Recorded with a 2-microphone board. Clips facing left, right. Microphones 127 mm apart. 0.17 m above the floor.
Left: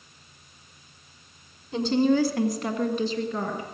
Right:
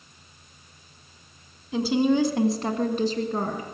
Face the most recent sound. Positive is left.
turn(degrees=-50)  # may be behind; listen again after turning